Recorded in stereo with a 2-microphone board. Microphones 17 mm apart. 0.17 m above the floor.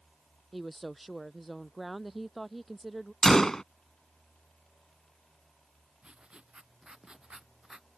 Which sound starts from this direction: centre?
A woman speaking, at 0.5 s.